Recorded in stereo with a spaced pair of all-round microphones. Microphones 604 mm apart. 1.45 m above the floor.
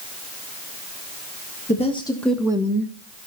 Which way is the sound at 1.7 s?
10° left (ahead or behind).